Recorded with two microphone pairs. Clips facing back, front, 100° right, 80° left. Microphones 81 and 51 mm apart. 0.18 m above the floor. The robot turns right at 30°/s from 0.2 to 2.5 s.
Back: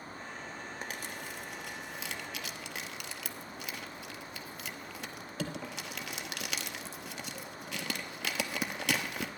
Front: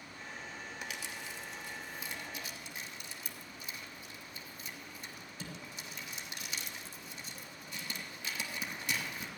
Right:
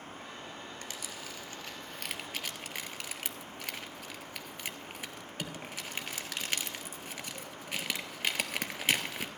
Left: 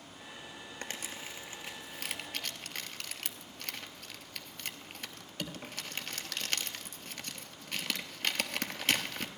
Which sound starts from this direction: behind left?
Crumpling, at 0.8 s.